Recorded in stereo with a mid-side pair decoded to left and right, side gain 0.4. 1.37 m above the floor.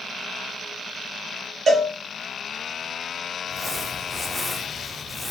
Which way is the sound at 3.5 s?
Straight ahead.